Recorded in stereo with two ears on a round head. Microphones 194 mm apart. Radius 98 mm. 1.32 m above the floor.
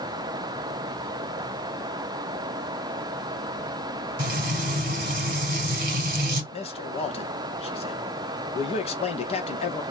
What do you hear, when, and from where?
4.2 s frying: 45° right (ahead or behind), 2 m
6.5 s a man speaking: 30° left (ahead or behind), 1.4 m